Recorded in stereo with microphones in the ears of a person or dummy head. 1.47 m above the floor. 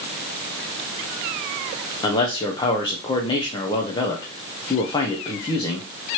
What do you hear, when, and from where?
2.0 s a man speaking: 25° left (ahead or behind), 0.6 m